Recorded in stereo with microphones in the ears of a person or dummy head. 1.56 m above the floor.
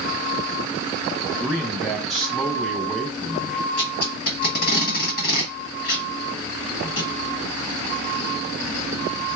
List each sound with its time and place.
1.4 s a man speaking: 5° left (ahead or behind), 1.3 m
3.8 s tape being pulled: 60° left (ahead or behind), 1.5 m